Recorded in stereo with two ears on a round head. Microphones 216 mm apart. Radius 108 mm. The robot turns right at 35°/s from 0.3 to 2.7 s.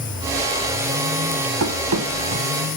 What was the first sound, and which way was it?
Running footsteps, 70° right (ahead or behind).